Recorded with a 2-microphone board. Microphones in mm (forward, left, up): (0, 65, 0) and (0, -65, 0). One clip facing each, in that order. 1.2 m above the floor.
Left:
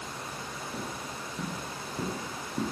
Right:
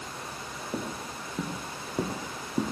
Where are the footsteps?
55° right (ahead or behind), 3 m; by 2.7 s 35° right (ahead or behind), 3.5 m.